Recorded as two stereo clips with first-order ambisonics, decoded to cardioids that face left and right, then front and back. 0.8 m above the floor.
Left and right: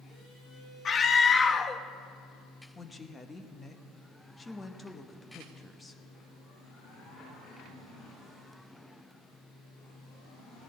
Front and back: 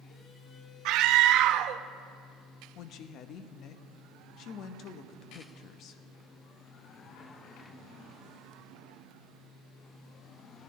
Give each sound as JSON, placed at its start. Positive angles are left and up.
{"t": 0.8, "sound": "a scream", "azimuth_deg": 155, "distance_m": 0.7}
{"t": 2.8, "sound": "a woman speaking", "azimuth_deg": 15, "distance_m": 0.8}